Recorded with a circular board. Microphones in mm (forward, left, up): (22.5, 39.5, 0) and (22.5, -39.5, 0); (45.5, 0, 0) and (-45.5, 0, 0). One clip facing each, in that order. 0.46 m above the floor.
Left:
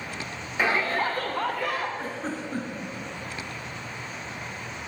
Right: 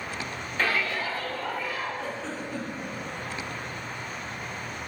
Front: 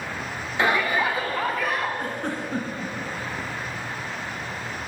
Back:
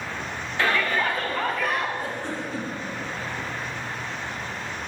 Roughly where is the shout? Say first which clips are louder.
Left 3 dB, front 2 dB; ahead left.